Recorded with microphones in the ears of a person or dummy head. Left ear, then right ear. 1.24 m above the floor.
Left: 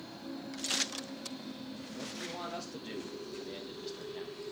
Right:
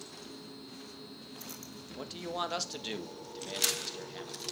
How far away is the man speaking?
About 1.4 m.